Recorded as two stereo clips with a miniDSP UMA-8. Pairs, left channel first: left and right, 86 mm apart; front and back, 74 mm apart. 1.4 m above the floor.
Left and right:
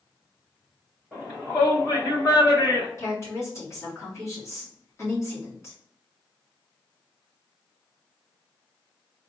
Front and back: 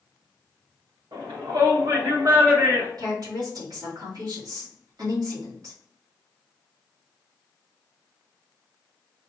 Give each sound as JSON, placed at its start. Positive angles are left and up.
{"t": 1.1, "sound": "a shout", "azimuth_deg": 165, "distance_m": 1.5}
{"t": 3.0, "sound": "a woman speaking", "azimuth_deg": 145, "distance_m": 2.0}